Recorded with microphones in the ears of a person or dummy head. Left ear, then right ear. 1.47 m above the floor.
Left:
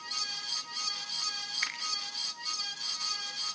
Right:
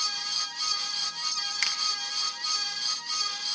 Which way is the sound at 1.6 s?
70° right (ahead or behind).